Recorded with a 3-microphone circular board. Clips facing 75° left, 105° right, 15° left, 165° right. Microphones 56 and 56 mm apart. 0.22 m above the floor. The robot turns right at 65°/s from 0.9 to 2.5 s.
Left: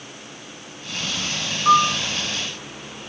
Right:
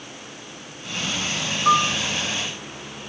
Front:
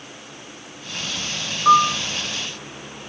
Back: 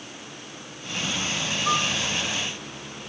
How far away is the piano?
About 1.6 m.